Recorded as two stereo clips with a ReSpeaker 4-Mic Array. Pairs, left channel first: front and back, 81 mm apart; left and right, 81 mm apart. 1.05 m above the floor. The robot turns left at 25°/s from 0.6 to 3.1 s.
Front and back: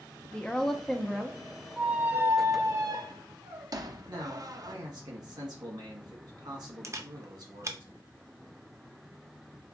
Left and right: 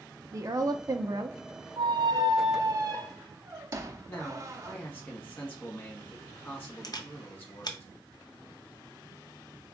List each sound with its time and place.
0.3 s a woman speaking: 75° right, 0.6 m; by 1.4 s 95° right, 0.6 m
1.8 s a squeak: 105° right, 0.6 m; by 4.8 s 140° right, 0.6 m
4.1 s a man speaking: 155° left, 1.7 m
6.8 s a camera shutter: 125° left, 0.6 m